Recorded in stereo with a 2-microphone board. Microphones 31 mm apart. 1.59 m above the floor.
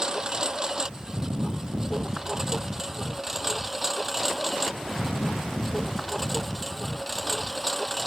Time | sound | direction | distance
0.0 | a lawn mower | 20° right (ahead or behind) | ?